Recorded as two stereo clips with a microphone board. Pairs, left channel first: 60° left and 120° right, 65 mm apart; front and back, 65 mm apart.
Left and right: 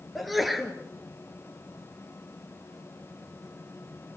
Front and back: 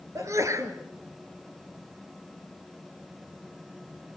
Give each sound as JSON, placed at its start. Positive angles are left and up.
{"t": 0.1, "sound": "a sneeze", "azimuth_deg": 150, "distance_m": 2.5}